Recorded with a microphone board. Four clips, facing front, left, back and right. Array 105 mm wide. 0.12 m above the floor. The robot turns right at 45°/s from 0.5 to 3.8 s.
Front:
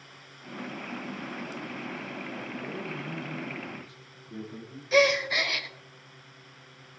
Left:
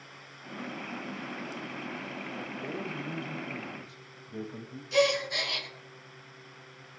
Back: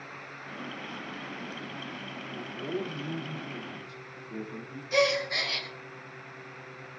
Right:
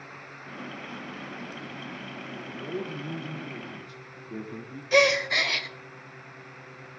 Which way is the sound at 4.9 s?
65° right.